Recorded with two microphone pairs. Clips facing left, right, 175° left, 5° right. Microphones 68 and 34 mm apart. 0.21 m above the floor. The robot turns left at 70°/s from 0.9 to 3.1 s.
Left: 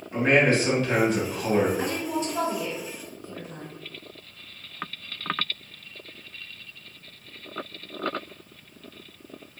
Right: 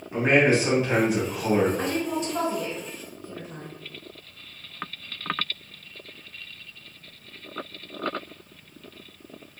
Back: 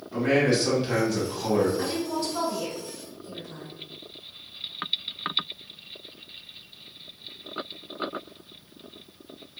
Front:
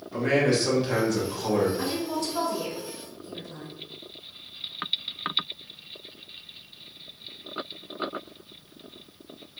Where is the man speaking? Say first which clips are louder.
Right 1 dB, back 1 dB; 100° right, 1.1 m; by 1.7 s 155° right, 1.1 m.